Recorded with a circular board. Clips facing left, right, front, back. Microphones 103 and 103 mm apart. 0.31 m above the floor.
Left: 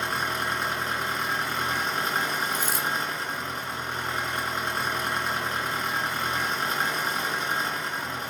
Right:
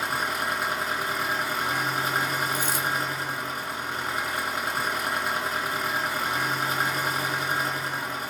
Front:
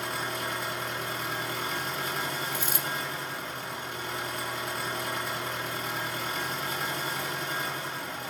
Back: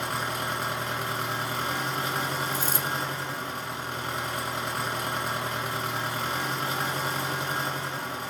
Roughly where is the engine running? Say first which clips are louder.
Even, back 3 dB; behind.